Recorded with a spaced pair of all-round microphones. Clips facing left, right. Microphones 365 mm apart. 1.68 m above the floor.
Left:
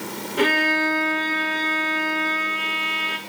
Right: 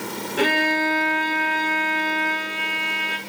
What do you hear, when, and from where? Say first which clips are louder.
0.4 s a violin: left 1 dB; 5° left (ahead or behind), 3 m